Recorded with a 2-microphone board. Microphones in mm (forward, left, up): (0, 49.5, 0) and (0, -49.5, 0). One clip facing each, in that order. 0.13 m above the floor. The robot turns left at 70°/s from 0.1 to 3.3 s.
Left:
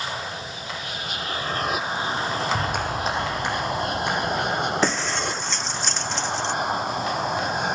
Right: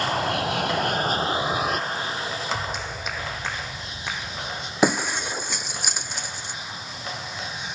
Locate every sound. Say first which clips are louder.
0.0 s an aircraft: right 7 dB; 55° right (ahead or behind); by 7.8 s 50° left (ahead or behind)
2.5 s a clap: left 5 dB; 70° left; by 4.7 s 20° left
4.8 s breaking glass: right 2 dB; 10° right (ahead or behind)